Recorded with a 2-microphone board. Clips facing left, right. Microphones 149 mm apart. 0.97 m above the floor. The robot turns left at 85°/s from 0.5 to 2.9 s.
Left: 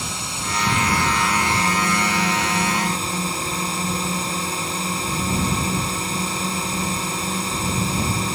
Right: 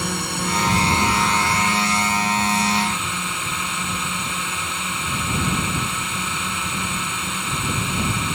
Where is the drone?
120° right; by 8.4 s 35° left.